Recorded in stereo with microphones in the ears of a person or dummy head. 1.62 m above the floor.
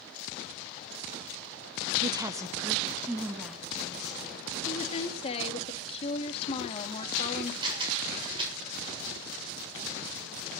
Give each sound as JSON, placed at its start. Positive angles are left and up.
{"t": 2.0, "sound": "a woman speaking", "side_deg": -30, "distance_m": 0.7}
{"t": 4.7, "sound": "a woman speaking", "side_deg": 30, "distance_m": 2.5}
{"t": 7.6, "sound": "a camera shutter", "side_deg": -30, "distance_m": 7.5}